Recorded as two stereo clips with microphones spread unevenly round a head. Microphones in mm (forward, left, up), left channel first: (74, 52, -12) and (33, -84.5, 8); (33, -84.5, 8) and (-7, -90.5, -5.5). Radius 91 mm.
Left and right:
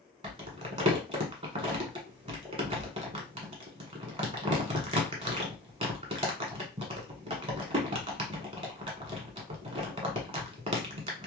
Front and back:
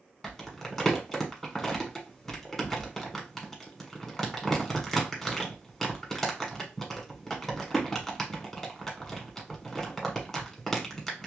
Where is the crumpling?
65° right, 1.3 m.